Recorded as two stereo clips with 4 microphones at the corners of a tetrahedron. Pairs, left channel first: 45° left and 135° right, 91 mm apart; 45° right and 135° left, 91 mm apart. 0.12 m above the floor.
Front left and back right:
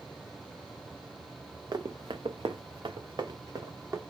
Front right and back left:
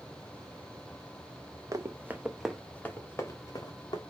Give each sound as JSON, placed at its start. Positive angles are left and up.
{"t": 1.7, "sound": "running footsteps", "azimuth_deg": -170, "distance_m": 0.9}